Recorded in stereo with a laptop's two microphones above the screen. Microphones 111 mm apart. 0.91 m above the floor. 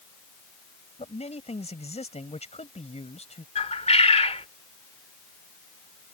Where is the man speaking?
80° left.